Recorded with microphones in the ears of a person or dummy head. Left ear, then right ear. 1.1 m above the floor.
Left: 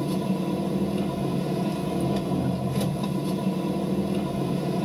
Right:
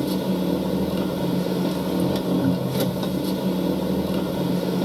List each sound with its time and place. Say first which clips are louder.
0.0 s an engine running: right 4 dB; 70° right (ahead or behind), 1.5 m